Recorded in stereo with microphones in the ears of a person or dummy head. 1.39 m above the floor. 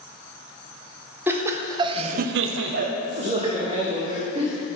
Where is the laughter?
15° right (ahead or behind), 1.5 m; by 4.5 s 20° right (ahead or behind), 2.5 m.